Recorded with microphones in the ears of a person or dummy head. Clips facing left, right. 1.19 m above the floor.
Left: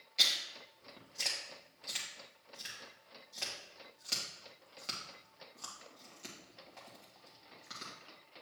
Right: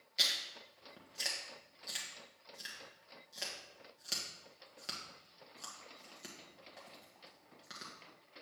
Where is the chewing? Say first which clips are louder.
Left 1 dB; 10° right (ahead or behind), 1.5 m.